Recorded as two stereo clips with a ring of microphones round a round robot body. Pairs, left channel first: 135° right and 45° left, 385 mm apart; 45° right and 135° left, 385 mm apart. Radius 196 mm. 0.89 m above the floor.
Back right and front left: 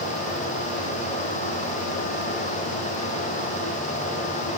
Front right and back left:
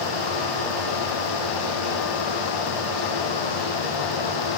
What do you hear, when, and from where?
Only background noise.